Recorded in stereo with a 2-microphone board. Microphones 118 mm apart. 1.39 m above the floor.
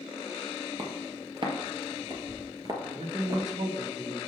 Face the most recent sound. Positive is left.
turn(degrees=-75)  # may be behind; listen again after turning